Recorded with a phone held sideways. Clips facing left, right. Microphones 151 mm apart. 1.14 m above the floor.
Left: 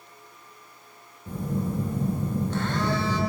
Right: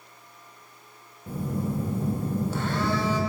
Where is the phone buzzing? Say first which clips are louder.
Even; 5° right (ahead or behind), 1.1 m.